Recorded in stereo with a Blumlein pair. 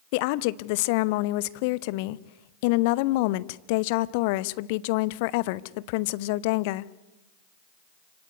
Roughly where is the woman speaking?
Ahead left.